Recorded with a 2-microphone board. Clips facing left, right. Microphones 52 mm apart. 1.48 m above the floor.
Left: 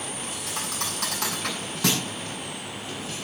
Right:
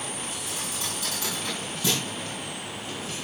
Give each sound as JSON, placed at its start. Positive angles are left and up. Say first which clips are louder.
{"t": 0.5, "sound": "a thud", "louder": "left 2 dB", "side_deg": 80, "distance_m": 8.0}